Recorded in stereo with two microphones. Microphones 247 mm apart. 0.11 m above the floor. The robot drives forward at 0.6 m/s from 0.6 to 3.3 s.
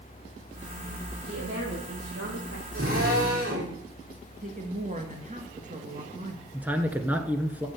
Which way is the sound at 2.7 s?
60° right (ahead or behind).